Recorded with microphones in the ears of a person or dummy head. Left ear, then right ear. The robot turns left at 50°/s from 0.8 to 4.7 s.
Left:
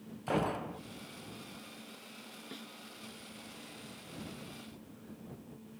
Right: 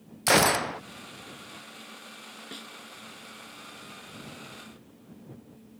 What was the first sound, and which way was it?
A gunshot, 60° right (ahead or behind).